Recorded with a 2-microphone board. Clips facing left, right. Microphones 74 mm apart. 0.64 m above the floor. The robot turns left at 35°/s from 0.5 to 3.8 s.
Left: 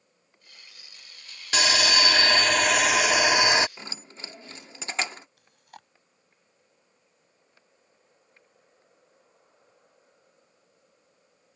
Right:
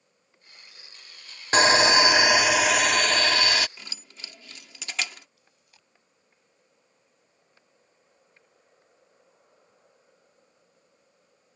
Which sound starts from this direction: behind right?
Sawing, at 1.5 s.